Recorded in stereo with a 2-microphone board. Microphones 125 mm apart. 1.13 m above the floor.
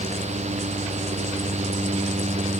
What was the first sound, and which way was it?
Only background noise.